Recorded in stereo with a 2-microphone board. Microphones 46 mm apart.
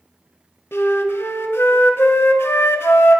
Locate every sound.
0.7 s a flute: 65° left (ahead or behind), 0.6 m